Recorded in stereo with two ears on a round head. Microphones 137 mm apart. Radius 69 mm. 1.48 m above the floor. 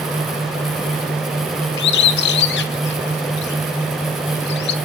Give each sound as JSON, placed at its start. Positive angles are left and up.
{"t": 1.8, "sound": "a bird", "side_deg": 85, "distance_m": 1.1}